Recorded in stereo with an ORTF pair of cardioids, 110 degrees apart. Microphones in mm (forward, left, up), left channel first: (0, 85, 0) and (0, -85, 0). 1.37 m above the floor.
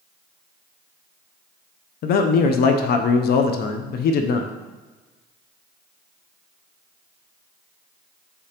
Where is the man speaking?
60° left, 0.6 m.